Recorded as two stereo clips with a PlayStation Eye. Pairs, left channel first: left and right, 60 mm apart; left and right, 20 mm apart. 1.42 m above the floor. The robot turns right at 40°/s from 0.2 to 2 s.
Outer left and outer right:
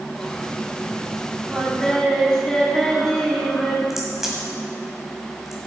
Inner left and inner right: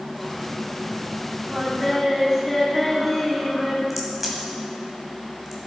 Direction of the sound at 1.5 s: 5° right (ahead or behind).